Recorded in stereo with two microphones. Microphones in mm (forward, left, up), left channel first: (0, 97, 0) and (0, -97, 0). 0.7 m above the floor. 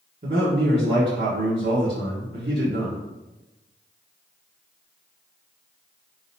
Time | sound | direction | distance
0.2 | a man speaking | 55° right (ahead or behind) | 1.3 m